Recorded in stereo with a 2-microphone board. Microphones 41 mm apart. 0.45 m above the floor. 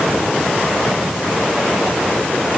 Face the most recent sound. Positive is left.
No sound to turn to.